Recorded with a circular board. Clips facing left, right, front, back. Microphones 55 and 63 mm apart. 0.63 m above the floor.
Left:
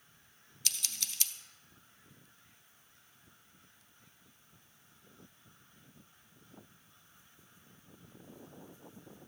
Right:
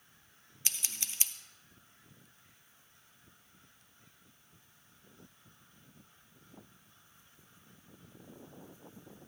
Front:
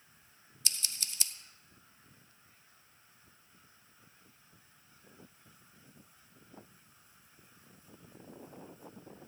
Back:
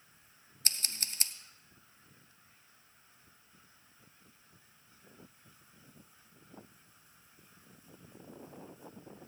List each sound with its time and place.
0.7 s scissors: 145° right, 0.6 m